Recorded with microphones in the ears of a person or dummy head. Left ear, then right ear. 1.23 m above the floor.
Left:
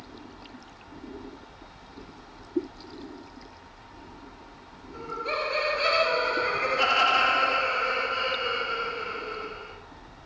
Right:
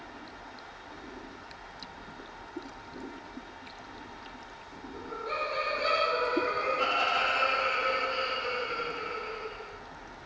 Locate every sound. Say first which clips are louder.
4.9 s laughter: left 4 dB; 65° left (ahead or behind), 1.4 m; by 9.7 s 55° right (ahead or behind), 1.5 m